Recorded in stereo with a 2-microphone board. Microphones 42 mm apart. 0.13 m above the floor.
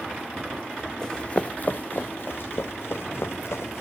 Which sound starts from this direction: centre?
Running footsteps, at 1.0 s.